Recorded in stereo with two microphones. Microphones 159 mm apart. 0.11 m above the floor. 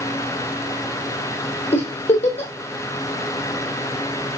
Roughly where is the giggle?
Left.